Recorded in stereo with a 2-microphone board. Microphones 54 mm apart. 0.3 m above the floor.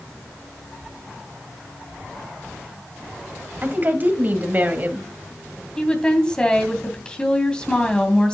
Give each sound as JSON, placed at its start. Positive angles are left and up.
{"t": 3.6, "sound": "a woman speaking", "side_deg": -35, "distance_m": 1.7}
{"t": 5.8, "sound": "a woman speaking", "side_deg": 20, "distance_m": 2.5}